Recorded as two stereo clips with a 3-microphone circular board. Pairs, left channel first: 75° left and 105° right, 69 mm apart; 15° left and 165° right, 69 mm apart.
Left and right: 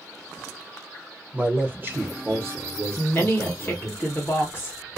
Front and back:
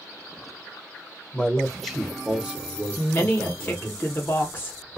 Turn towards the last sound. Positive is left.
turn(degrees=50)